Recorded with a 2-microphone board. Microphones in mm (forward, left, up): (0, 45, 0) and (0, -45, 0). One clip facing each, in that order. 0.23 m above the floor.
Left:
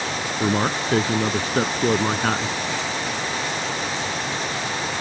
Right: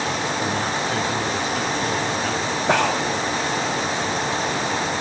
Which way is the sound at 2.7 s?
70° right (ahead or behind).